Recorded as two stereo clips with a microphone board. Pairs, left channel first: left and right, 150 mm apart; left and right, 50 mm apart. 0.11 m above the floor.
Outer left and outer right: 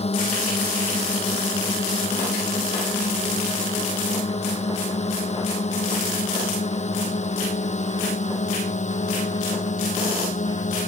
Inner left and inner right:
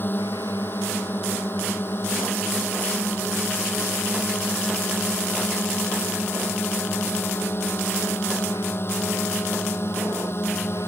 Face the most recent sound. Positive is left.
turn(degrees=55)  # may be behind; listen again after turning